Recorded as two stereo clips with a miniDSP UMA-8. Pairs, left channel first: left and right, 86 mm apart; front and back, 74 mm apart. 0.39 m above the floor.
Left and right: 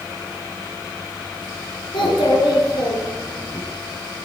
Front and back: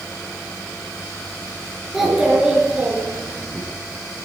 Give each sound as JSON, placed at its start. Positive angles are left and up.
{"t": 1.9, "sound": "a child speaking", "azimuth_deg": 95, "distance_m": 4.5}